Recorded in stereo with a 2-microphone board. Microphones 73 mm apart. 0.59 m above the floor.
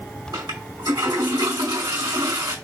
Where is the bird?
No bird in this recording.